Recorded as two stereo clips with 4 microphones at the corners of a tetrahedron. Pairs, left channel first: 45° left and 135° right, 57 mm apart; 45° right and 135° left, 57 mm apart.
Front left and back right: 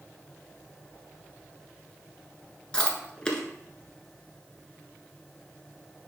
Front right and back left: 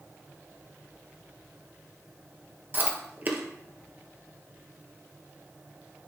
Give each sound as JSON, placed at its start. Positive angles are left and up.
{"t": 2.7, "sound": "chewing", "azimuth_deg": 110, "distance_m": 1.1}